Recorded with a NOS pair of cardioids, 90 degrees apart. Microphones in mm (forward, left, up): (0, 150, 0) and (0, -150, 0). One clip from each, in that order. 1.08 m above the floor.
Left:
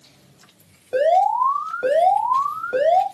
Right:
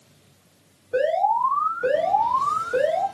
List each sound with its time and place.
0.9 s an alarm: 55° left, 2 m